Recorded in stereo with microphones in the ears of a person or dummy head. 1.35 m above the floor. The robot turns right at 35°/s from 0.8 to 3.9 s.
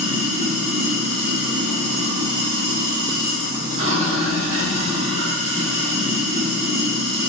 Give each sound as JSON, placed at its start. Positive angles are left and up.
{"t": 0.0, "sound": "running water", "azimuth_deg": -140, "distance_m": 1.2}